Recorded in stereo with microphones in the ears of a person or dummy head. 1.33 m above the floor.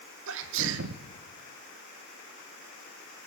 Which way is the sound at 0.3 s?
65° right (ahead or behind).